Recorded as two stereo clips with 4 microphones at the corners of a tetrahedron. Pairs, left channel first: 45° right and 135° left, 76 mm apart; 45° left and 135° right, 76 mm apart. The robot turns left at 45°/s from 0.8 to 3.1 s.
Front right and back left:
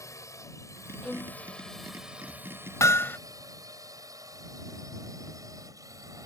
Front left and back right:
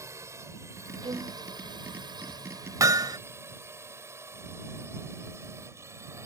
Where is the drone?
90° right; by 6.3 s 175° left.